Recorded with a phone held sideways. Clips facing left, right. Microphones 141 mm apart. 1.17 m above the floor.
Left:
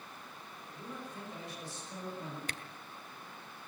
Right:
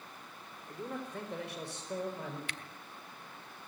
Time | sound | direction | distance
0.7 | a man speaking | 70° right (ahead or behind) | 3.5 m
2.5 | a camera shutter | 40° left (ahead or behind) | 1.5 m